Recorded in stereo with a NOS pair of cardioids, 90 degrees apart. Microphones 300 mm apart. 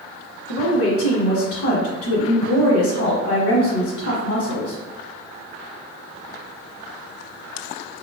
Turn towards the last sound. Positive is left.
turn(degrees=55)